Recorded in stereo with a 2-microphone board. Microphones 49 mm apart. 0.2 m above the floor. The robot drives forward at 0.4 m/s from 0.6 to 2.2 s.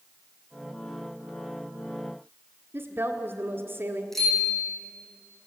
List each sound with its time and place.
2.7 s a woman speaking: 45° right (ahead or behind), 1.6 m
4.1 s a bicycle bell: 5° left (ahead or behind), 8 m